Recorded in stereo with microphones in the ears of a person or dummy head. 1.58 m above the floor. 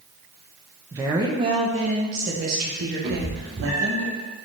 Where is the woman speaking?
15° right (ahead or behind), 1.1 m; by 4.0 s 70° right (ahead or behind), 2 m.